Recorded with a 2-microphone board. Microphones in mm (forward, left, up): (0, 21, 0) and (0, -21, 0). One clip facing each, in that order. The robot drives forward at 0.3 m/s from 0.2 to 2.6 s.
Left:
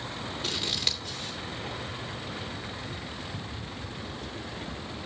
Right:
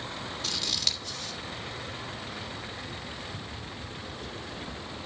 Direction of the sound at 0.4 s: 20° left (ahead or behind).